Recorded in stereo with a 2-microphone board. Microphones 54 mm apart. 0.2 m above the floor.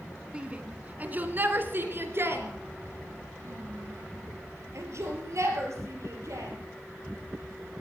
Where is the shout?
20° right (ahead or behind), 1.6 m; by 6.5 s 65° right (ahead or behind), 5 m.